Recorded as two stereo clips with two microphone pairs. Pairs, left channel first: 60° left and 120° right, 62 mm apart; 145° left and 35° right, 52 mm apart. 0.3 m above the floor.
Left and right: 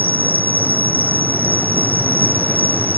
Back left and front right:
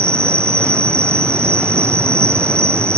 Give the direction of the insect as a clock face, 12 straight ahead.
2 o'clock.